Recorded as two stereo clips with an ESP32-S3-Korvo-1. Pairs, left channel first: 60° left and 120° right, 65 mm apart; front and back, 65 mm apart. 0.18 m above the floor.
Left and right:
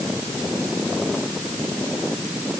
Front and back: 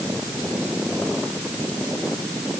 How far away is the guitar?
I don't hear a guitar.